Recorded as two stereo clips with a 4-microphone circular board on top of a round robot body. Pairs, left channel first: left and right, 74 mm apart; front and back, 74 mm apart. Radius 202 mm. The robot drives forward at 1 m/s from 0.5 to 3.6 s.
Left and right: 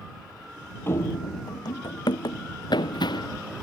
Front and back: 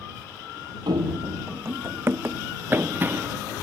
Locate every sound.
0.9 s running footsteps: 155° left; by 3.4 s 115° left